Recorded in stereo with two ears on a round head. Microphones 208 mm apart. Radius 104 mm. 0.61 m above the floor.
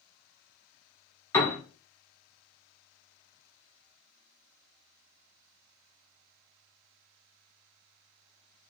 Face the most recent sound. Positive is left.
turn(degrees=15)  # may be behind; listen again after turning